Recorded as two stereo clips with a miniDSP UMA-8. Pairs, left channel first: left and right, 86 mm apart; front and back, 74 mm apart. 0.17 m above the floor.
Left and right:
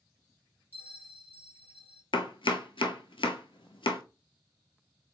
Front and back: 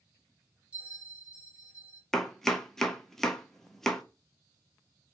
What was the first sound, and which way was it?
A bell, 125° right.